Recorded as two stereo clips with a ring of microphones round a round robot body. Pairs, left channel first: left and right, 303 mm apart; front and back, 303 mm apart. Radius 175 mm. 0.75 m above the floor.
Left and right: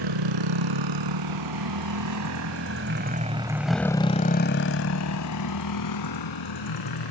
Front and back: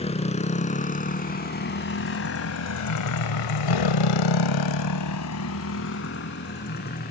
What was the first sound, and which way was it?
A motorcycle, 70° right.